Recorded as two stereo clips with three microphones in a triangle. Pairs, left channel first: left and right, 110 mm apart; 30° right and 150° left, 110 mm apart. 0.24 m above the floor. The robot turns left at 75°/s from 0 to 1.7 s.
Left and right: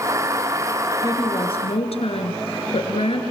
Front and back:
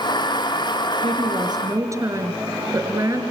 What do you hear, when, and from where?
1.0 s a woman speaking: 145° left, 5 m; by 3.2 s 95° left, 5 m